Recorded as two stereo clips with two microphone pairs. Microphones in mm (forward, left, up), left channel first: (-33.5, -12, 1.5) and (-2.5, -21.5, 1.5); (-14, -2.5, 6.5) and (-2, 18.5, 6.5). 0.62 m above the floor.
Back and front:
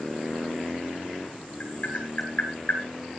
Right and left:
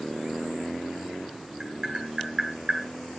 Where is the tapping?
120° left, 9 m.